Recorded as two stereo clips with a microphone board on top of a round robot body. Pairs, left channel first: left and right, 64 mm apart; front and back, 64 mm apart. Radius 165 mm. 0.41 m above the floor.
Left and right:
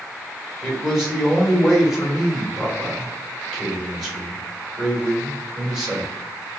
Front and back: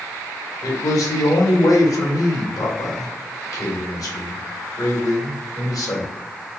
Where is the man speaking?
5° right, 1.9 m.